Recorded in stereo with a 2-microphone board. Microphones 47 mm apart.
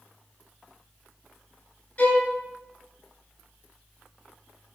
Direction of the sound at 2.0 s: 35° left (ahead or behind).